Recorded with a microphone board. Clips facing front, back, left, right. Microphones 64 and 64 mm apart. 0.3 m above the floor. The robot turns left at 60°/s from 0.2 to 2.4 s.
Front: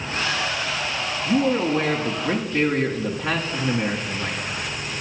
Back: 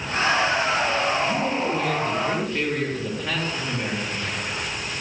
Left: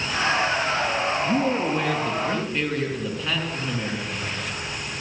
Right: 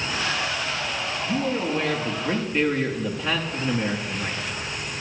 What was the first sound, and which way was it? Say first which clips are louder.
A man speaking: front 3 dB, right 1 dB; 50° left.